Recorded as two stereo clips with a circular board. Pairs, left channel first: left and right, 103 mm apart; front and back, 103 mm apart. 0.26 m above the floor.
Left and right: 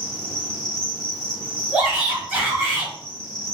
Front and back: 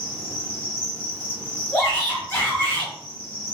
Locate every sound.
0.0 s an insect: 20° left, 1.4 m
1.7 s a shout: 25° right, 1.2 m